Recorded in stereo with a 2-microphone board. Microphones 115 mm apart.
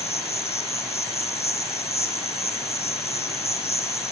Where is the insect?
70° left (ahead or behind), 1.4 m.